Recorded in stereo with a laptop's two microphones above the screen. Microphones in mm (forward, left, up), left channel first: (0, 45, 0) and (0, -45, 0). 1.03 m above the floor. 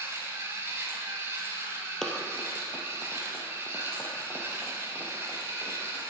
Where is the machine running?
30° right (ahead or behind), 1.6 m.